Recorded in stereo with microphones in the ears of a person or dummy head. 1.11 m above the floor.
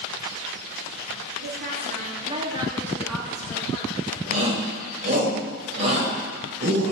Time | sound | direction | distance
1.4 | a woman speaking | 60° right (ahead or behind) | 2 m
4.3 | a shout | 35° right (ahead or behind) | 4 m